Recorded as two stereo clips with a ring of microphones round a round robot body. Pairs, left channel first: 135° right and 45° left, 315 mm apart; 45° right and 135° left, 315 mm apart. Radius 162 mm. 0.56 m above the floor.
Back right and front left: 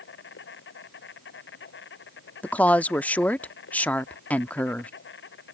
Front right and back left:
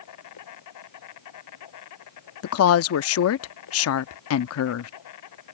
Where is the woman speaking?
50° right.